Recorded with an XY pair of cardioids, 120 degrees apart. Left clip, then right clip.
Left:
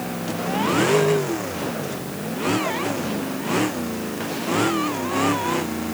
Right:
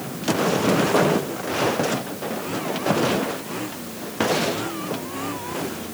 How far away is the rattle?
I don't hear a rattle.